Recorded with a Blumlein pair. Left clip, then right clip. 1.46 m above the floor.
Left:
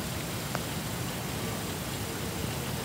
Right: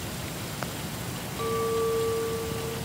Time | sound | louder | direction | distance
1.4 | a clink | right 10 dB | 35° right | 5.5 m